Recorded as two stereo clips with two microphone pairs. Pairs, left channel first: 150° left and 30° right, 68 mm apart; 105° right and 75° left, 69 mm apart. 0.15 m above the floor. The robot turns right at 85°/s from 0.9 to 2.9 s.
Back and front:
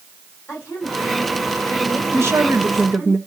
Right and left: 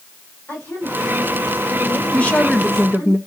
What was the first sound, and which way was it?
A woman speaking, 150° right.